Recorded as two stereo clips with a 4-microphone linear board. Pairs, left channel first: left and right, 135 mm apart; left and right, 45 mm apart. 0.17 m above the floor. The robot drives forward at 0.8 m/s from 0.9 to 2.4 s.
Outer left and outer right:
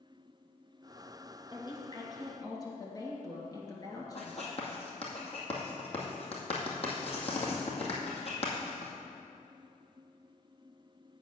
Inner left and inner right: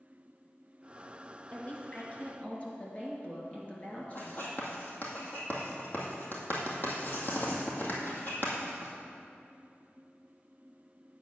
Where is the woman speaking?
35° left (ahead or behind), 2.0 m; by 4.5 s 25° left (ahead or behind), 2.5 m.